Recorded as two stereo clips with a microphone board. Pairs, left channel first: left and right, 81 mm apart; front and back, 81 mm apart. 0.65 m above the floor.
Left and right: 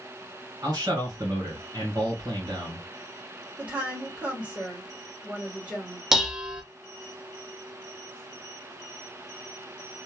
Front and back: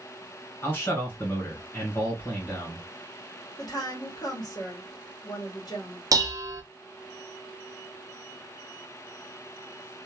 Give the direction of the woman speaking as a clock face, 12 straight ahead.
1 o'clock.